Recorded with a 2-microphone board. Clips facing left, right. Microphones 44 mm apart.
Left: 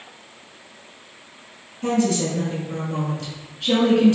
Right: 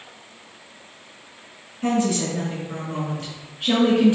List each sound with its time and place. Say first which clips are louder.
1.8 s a woman speaking: left 1 dB; 20° right (ahead or behind), 1.9 m